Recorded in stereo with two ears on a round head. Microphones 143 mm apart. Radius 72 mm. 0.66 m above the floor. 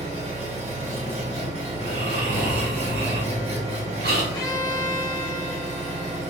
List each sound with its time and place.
0.0 s an engine running: 45° right (ahead or behind), 2 m
1.7 s snoring: 70° right (ahead or behind), 1.8 m
4.3 s a violin: 25° left (ahead or behind), 1.5 m